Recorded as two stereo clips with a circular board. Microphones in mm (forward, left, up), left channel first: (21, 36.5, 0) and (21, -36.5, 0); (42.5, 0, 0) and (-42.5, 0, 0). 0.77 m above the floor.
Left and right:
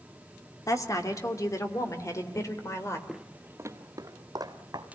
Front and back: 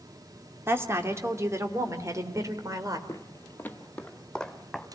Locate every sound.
0.7 s a woman speaking: 120° left, 2.5 m; by 3.0 s 135° left, 3.5 m
3.1 s footsteps: 5° right, 0.9 m; by 4.8 s 85° right, 2.5 m